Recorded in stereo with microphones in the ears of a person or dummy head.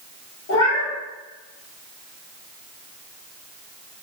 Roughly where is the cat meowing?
Left.